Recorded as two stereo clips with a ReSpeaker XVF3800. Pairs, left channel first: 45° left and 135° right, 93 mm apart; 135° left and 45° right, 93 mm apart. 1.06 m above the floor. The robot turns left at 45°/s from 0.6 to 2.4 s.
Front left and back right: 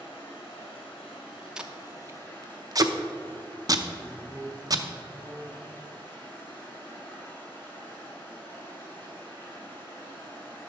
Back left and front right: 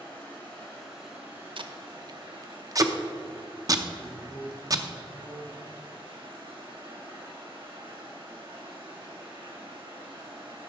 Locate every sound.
0.0 s running water: 60° left, 3.5 m; by 10.7 s 25° right, 3.5 m
1.6 s tape being pulled: 55° right, 0.6 m; by 4.8 s 90° right, 0.6 m
4.0 s a man speaking: 40° left, 4 m